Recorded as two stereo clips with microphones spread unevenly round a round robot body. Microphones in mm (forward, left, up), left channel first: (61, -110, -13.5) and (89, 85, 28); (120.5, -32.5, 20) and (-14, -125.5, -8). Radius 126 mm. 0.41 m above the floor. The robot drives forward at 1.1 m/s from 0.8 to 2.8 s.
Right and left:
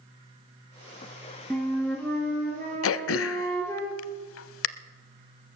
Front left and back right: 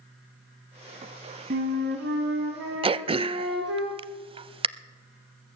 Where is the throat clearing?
85° right, 0.5 m.